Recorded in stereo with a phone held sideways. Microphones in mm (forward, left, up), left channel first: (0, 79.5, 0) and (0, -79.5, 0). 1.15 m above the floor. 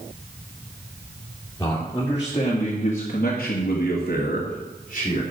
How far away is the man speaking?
About 3.5 m.